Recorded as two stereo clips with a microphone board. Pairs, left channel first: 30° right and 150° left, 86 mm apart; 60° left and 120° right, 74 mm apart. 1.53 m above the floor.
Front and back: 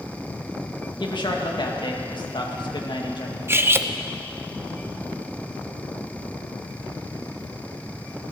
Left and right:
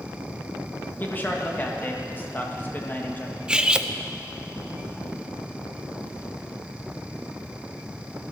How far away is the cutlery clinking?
About 0.6 m.